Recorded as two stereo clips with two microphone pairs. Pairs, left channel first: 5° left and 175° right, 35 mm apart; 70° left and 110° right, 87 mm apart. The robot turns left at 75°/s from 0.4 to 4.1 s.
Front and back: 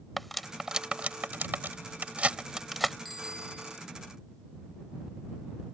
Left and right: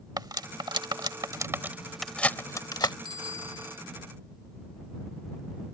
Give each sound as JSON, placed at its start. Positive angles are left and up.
{"t": 0.2, "sound": "cutlery clinking", "azimuth_deg": -80}
{"t": 3.0, "sound": "a bicycle bell", "azimuth_deg": -90}